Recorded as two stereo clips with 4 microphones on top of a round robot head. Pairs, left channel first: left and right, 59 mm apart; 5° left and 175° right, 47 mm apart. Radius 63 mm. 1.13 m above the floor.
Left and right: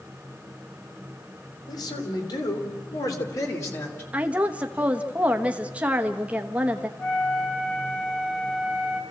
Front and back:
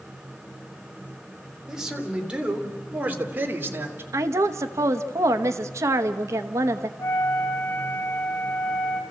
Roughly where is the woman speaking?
Behind.